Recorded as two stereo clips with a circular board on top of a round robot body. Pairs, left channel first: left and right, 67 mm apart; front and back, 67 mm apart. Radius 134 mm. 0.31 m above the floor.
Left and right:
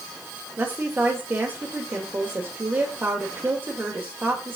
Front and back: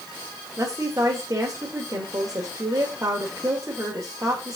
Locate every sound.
0.6 s a woman speaking: 145° right, 1.4 m